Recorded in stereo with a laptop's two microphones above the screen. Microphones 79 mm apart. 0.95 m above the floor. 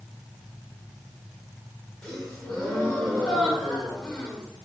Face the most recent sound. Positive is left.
turn(degrees=10)  # may be behind; listen again after turning